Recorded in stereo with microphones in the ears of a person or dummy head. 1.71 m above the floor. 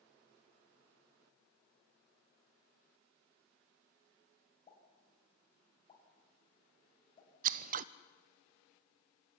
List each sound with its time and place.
4.7 s a pop: 30° left (ahead or behind), 7 m
7.4 s scissors: 45° right (ahead or behind), 0.6 m